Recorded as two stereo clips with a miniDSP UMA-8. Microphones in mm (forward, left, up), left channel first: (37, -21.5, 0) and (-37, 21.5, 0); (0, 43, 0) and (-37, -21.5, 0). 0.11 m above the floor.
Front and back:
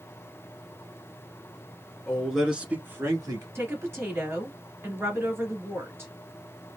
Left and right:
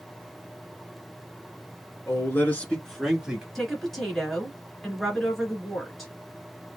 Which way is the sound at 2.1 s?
45° left.